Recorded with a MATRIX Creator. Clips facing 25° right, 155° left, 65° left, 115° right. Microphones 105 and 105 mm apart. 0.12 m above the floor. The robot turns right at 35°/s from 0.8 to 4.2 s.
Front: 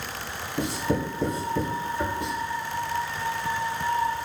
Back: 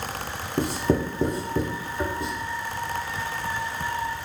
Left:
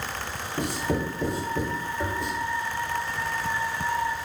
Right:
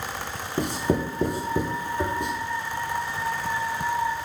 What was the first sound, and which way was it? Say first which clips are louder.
Writing: back 3 dB, right 3 dB; 170° right.